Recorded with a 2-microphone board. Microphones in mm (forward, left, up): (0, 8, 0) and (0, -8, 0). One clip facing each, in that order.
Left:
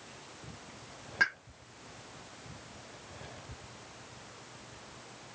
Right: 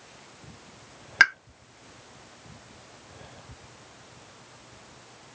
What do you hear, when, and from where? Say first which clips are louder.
1.2 s a pop: right 10 dB; 75° right (ahead or behind), 1.1 m